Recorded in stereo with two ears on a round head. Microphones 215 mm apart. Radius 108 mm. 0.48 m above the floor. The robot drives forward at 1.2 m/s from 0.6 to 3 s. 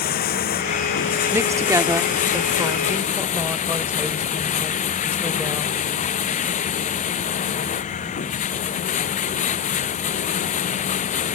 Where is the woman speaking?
10° right (ahead or behind); by 5.8 s 5° right (ahead or behind).